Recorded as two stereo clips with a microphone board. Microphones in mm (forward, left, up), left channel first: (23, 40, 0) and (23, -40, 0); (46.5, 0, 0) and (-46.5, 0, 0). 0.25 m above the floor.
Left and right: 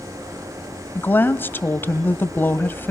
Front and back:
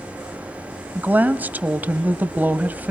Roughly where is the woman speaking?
Behind left.